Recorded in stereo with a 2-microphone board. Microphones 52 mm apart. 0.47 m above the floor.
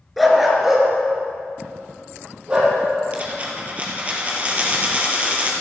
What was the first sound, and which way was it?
A dog barking, centre (ahead or behind).